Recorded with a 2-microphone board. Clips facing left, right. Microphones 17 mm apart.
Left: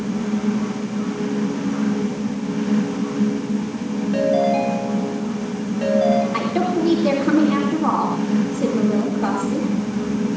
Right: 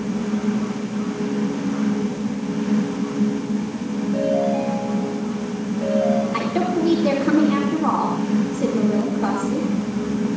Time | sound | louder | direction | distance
4.1 | a ringtone | left 3 dB | 65° left (ahead or behind) | 4 m
6.3 | a woman speaking | left 1 dB | centre (ahead or behind) | 2.5 m